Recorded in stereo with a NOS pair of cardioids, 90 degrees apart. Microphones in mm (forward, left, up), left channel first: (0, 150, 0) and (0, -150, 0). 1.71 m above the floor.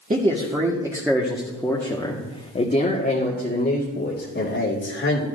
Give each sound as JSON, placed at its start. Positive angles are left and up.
{"t": 0.1, "sound": "a man speaking", "azimuth_deg": -25, "distance_m": 1.7}